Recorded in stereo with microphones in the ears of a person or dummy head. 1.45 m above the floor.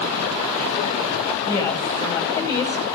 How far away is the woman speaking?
About 4.5 m.